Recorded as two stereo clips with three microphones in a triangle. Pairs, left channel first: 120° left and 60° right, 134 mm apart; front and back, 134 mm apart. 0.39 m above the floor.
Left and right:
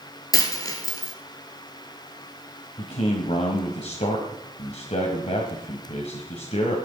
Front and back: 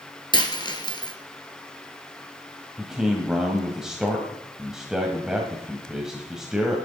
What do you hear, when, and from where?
0.3 s a dropped coin: 55° left, 1.9 m
2.8 s a man speaking: 95° left, 1.9 m